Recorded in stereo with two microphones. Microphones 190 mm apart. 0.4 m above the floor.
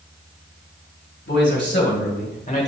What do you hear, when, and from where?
1.3 s a man speaking: 65° left (ahead or behind), 2 m; by 2.7 s 35° left (ahead or behind), 1.0 m